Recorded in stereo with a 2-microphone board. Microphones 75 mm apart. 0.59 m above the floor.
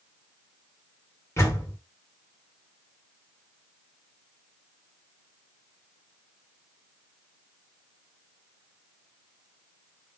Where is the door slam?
40° left (ahead or behind), 1.7 m.